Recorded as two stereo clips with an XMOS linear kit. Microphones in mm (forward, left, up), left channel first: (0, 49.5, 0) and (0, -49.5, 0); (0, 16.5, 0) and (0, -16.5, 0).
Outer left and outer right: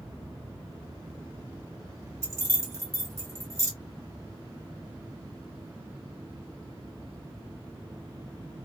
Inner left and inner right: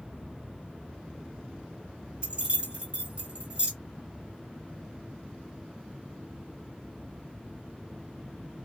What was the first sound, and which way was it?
Keys jangling, 30° right (ahead or behind).